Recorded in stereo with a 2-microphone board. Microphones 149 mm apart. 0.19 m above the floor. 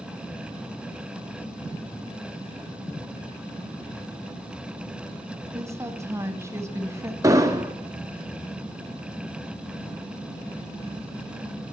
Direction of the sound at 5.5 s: 20° right (ahead or behind).